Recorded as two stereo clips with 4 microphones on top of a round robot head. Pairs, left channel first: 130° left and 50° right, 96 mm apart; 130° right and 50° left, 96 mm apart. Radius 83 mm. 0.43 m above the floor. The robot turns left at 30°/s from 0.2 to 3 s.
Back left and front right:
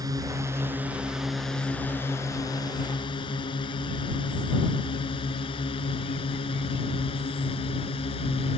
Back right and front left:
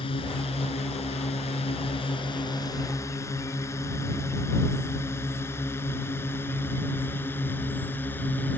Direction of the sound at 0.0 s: 100° right.